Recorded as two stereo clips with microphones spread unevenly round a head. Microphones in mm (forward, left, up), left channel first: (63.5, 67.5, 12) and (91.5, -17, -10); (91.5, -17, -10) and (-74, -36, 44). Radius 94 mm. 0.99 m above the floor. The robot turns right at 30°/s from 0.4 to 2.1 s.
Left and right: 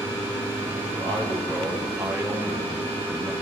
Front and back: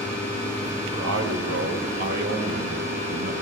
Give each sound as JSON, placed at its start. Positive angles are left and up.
{"t": 0.9, "sound": "a man speaking", "azimuth_deg": 175, "distance_m": 4.5}